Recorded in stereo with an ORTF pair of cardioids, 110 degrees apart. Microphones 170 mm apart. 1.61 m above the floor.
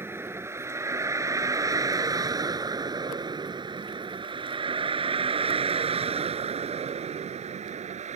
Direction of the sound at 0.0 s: 15° right.